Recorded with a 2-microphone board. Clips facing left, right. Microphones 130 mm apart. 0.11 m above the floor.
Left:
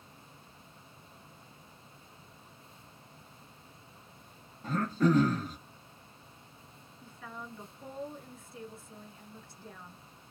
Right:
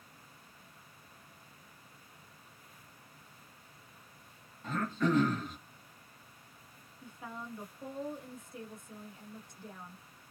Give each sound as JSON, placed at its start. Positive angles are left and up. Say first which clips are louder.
{"t": 4.6, "sound": "throat clearing", "louder": "left 4 dB", "side_deg": 40, "distance_m": 1.1}
{"t": 7.0, "sound": "a woman speaking", "louder": "right 1 dB", "side_deg": -20, "distance_m": 1.2}